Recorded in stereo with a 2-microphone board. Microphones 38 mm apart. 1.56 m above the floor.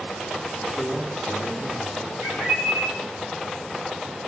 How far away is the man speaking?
About 3.5 m.